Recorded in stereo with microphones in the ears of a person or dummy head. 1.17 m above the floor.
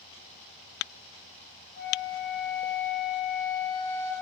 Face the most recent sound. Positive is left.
turn(degrees=60)  # may be behind; listen again after turning